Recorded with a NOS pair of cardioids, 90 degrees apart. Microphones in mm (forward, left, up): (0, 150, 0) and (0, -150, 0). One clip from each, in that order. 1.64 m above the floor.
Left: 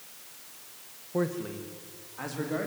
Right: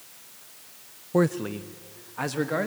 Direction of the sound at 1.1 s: 50° right.